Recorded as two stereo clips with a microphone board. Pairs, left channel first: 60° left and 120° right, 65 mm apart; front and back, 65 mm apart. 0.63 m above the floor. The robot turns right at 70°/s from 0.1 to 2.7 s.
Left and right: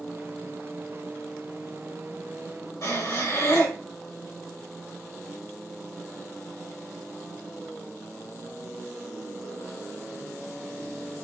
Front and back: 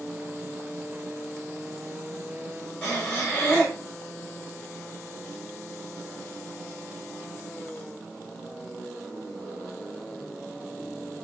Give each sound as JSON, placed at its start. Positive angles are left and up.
{"t": 2.8, "sound": "breathing", "azimuth_deg": 60, "distance_m": 2.5}